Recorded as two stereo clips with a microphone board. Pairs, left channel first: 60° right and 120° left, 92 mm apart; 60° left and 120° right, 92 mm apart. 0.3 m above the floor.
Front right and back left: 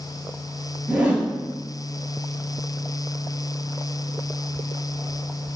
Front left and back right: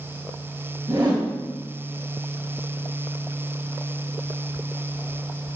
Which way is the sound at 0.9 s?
165° right.